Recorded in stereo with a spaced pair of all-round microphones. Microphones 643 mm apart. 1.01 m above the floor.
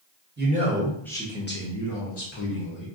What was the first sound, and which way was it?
A man speaking, 15° right (ahead or behind).